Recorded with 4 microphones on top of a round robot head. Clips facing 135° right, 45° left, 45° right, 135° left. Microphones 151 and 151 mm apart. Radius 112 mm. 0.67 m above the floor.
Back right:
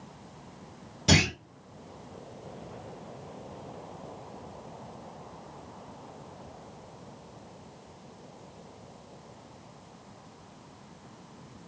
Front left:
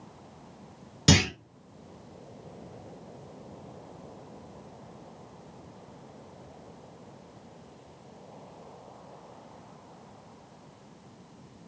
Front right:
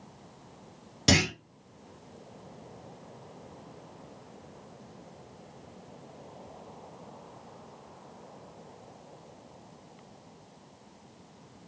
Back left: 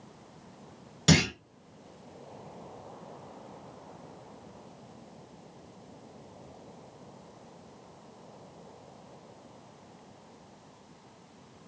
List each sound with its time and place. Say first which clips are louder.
1.1 s a clunk: front left 2 dB, back left 1 dB; 35° left, 1.7 m